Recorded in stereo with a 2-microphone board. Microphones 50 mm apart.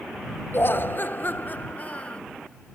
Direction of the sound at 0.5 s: 50° left (ahead or behind).